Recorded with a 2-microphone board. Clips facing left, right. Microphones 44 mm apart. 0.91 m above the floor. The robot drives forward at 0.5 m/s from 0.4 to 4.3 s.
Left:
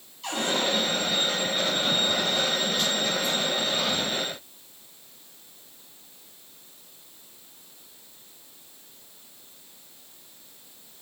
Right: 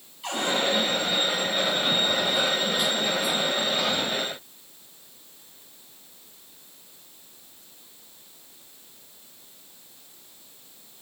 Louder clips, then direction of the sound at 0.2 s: Right 1 dB; 10° right (ahead or behind).